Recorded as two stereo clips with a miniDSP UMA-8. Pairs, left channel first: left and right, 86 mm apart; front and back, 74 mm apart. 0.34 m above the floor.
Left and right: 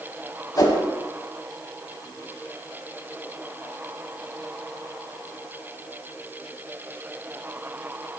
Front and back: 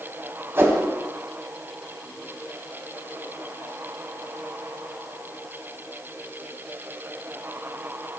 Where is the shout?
I don't hear a shout.